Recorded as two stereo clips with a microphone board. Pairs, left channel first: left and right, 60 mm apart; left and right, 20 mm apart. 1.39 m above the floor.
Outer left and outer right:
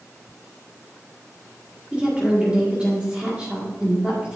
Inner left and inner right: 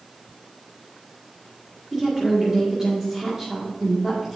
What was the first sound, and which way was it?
A woman speaking, 20° right (ahead or behind).